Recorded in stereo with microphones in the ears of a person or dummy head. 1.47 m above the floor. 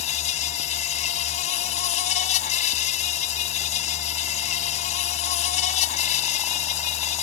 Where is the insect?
40° left (ahead or behind).